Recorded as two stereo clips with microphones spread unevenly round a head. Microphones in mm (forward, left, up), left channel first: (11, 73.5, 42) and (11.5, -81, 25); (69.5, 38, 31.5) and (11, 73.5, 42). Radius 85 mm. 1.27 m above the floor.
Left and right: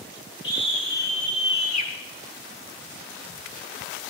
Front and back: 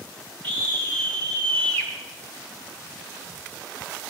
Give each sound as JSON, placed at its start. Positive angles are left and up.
{"t": 0.4, "sound": "a scream", "azimuth_deg": 150, "distance_m": 4.5}